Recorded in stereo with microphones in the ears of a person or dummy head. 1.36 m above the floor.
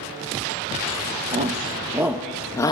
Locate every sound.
1.3 s a shout: 35° right (ahead or behind), 1.0 m; by 2.7 s 20° left (ahead or behind), 0.7 m